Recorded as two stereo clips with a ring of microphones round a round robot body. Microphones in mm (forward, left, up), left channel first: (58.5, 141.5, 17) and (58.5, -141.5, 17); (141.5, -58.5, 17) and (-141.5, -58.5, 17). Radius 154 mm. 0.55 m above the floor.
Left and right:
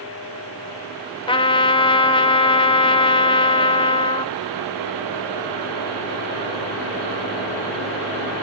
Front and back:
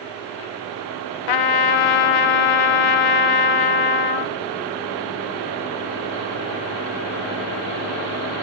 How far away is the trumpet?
About 0.7 m.